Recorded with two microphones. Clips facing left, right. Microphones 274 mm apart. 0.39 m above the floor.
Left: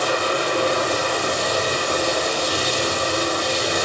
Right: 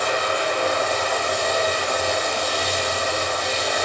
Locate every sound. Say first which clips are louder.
0.0 s running water: left 2 dB; 40° left (ahead or behind), 7 m